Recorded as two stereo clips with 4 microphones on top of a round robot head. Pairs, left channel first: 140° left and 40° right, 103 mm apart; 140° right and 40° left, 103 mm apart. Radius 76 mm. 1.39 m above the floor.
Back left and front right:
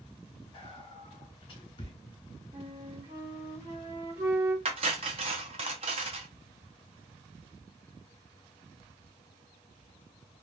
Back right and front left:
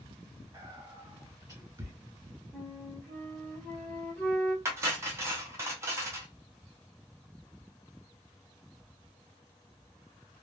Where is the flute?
65° right, 1.6 m.